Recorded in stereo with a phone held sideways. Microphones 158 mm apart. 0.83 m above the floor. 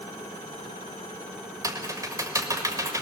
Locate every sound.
1.6 s typing on a keyboard: 20° right (ahead or behind), 1.6 m